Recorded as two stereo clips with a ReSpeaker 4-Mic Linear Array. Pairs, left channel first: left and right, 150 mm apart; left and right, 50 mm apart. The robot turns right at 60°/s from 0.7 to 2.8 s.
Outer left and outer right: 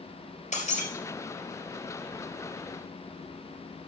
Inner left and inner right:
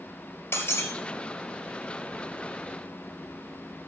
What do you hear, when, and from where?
0.5 s breaking glass: 55° left (ahead or behind), 2.5 m; by 0.9 s 65° left (ahead or behind), 2.5 m